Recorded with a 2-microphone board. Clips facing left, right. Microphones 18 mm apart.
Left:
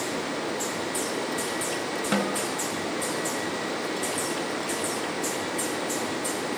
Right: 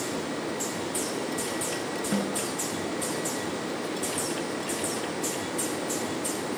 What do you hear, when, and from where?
2.1 s a snare drum: 55° left (ahead or behind)